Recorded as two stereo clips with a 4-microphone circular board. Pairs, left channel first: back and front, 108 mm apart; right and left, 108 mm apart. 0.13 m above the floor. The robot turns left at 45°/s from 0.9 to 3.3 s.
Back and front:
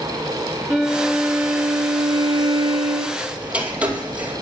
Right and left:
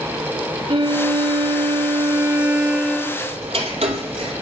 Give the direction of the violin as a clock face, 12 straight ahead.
9 o'clock.